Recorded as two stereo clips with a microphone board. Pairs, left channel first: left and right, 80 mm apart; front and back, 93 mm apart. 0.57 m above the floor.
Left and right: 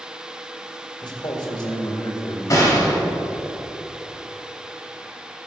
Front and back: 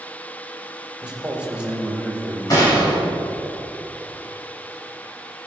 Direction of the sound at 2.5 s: 45° left.